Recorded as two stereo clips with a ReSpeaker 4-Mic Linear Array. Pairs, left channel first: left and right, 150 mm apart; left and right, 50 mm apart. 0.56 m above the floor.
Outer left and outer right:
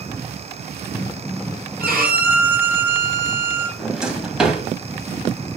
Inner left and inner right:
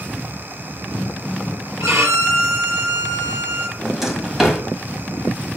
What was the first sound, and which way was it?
A violin, 80° right.